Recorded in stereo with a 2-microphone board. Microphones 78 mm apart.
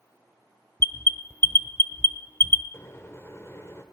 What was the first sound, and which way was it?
An alarm, 30° left (ahead or behind).